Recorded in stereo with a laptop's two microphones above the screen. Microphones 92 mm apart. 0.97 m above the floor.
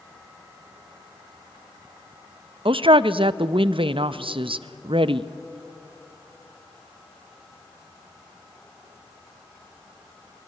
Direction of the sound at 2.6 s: 75° right (ahead or behind).